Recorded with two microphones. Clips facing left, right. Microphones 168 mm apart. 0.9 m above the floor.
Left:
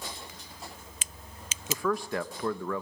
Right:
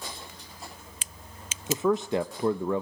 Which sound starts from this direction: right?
A man speaking, at 1.7 s.